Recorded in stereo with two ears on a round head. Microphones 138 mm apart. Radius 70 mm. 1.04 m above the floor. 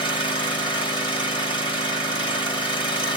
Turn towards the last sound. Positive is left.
turn(degrees=35)  # may be behind; listen again after turning